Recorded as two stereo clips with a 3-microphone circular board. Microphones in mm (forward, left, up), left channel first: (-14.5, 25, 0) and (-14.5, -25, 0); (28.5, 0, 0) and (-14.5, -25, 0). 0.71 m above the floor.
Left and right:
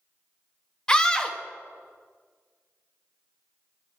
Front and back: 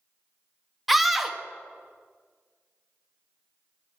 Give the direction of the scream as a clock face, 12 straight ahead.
8 o'clock.